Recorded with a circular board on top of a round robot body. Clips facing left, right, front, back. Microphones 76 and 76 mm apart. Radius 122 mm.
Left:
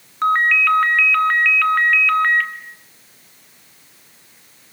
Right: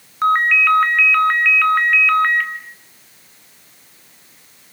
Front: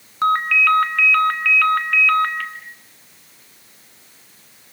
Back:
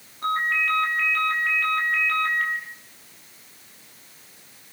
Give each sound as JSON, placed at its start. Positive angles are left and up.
{"t": 0.2, "sound": "a ringtone", "azimuth_deg": -5, "distance_m": 2.0}